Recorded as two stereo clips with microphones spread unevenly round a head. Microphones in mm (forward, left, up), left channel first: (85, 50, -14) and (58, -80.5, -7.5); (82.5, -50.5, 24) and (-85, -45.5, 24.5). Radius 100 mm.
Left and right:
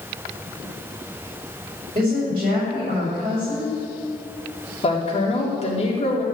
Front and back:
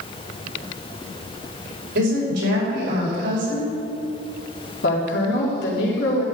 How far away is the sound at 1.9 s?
About 5.5 m.